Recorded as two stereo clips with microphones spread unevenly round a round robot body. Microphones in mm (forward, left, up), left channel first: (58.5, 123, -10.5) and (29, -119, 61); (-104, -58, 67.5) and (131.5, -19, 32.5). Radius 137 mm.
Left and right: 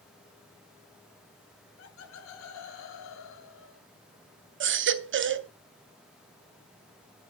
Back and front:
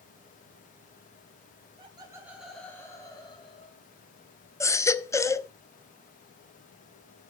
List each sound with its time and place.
1.8 s laughter: 70° left, 1.4 m; by 3.8 s 120° left, 2.5 m
4.6 s a baby crying: 90° right, 0.9 m